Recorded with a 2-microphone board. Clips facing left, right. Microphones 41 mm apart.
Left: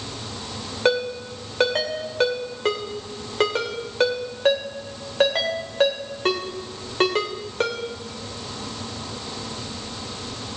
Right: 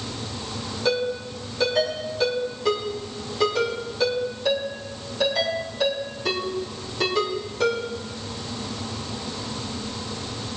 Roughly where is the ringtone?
Left.